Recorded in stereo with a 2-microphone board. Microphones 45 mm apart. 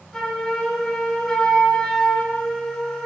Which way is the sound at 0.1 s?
5° left (ahead or behind).